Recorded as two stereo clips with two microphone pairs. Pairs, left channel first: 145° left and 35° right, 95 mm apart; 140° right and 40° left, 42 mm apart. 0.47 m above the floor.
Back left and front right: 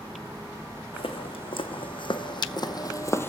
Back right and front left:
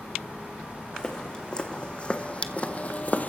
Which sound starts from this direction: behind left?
Footsteps, at 0.9 s.